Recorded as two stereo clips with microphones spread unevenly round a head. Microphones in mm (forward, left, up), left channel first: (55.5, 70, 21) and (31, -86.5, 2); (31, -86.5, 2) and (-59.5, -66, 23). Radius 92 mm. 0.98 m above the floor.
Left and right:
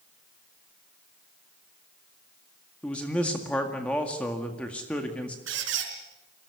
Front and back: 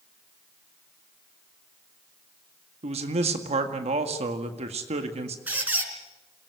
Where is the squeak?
120° right, 4.5 m.